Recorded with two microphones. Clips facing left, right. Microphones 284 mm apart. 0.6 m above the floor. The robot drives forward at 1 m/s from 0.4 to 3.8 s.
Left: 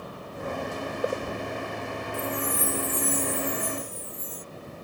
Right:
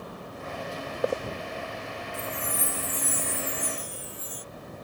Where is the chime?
70° right (ahead or behind); by 4.5 s 75° right (ahead or behind).